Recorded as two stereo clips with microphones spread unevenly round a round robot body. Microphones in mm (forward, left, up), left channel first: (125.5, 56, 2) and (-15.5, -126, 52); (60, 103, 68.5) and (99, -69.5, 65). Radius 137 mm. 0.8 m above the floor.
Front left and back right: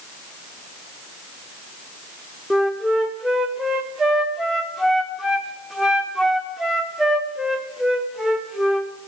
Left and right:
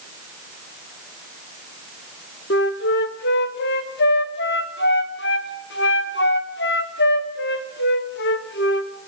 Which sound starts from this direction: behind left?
A flute, at 2.5 s.